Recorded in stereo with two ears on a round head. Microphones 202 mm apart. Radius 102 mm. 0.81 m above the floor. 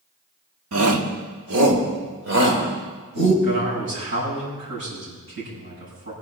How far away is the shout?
About 1.7 m.